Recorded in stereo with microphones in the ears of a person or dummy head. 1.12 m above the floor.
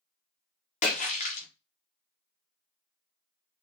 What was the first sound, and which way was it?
A splash, 30° left (ahead or behind).